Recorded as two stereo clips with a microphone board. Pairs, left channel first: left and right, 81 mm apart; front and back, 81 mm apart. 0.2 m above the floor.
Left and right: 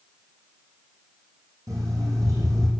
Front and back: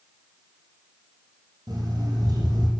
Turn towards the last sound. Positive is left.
turn(degrees=-140)